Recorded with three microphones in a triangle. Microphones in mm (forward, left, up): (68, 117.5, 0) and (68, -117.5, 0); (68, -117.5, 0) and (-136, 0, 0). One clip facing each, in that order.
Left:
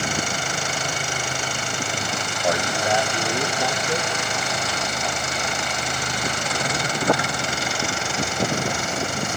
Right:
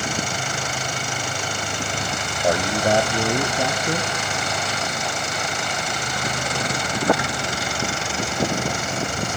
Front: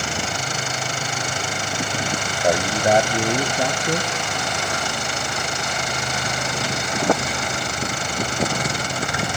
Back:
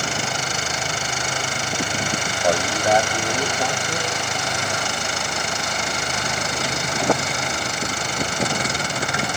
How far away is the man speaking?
About 1.1 m.